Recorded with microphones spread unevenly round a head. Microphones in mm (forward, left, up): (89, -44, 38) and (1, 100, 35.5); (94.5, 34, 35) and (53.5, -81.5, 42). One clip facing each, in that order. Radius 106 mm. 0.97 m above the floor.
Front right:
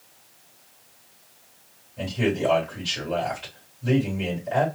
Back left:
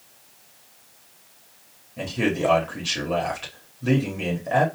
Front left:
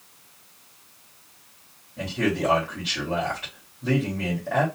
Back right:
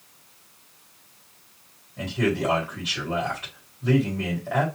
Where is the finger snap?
I don't hear a finger snap.